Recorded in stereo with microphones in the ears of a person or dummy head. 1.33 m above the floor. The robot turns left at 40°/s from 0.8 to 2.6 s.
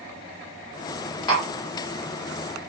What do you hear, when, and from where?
1.3 s tapping: 25° left (ahead or behind), 2 m; by 1.5 s 35° left (ahead or behind), 2 m